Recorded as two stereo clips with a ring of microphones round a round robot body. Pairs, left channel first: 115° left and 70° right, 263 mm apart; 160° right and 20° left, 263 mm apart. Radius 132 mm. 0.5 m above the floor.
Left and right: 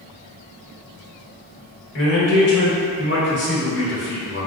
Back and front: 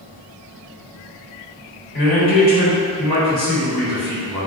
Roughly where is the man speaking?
Behind left.